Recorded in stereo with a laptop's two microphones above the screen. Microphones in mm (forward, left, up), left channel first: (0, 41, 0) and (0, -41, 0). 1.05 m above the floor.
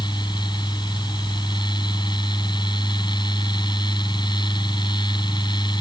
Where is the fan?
70° left (ahead or behind).